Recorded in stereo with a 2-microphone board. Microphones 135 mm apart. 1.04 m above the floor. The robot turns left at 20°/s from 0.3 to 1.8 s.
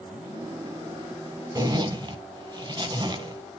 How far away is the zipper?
About 1.5 m.